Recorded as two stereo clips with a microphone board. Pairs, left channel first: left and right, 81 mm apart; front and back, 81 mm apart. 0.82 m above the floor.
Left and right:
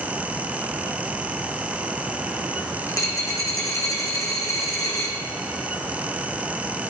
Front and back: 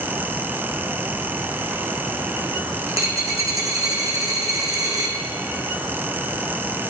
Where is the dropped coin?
135° left, 3 m.